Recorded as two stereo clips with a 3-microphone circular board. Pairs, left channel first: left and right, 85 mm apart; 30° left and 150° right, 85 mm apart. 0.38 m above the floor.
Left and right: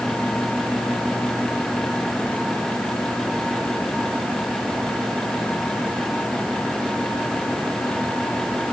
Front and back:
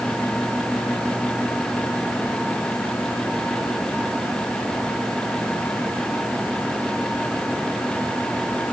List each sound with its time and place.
Only background noise.